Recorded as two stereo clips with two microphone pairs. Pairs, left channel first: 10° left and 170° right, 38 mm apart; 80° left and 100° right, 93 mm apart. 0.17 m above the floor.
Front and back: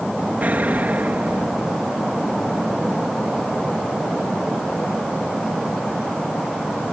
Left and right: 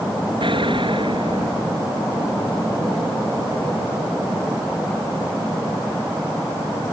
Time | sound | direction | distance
0.4 | an explosion | 125° right | ?